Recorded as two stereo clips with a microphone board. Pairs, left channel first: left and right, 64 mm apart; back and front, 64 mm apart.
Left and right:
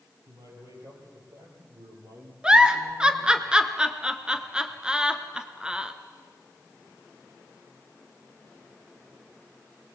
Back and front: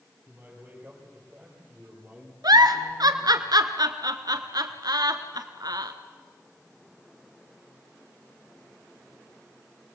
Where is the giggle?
15° right, 1.2 m.